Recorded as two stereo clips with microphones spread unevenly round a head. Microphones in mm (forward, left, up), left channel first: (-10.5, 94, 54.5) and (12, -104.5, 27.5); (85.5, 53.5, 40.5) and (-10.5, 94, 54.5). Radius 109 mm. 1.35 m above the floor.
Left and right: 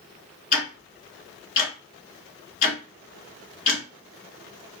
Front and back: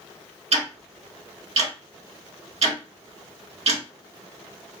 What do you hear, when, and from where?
0.5 s ticking: 150° left, 1.4 m